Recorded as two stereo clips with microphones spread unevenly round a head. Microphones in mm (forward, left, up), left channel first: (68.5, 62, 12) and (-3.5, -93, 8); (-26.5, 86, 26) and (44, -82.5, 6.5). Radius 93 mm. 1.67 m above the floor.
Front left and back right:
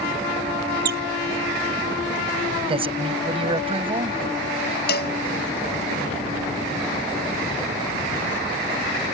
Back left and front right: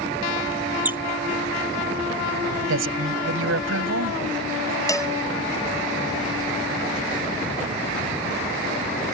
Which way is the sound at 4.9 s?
40° left.